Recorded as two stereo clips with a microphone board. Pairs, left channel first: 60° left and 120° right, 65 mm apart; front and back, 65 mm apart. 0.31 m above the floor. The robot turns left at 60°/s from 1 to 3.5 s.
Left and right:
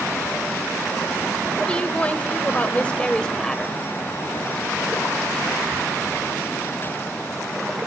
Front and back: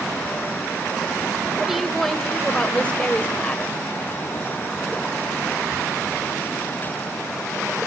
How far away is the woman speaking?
About 0.9 m.